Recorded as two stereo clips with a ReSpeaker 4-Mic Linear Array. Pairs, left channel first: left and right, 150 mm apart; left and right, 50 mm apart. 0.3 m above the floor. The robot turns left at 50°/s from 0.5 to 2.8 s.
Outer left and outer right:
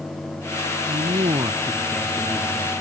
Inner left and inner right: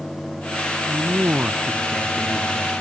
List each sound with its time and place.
0.9 s a man speaking: 110° right; by 2.7 s 160° left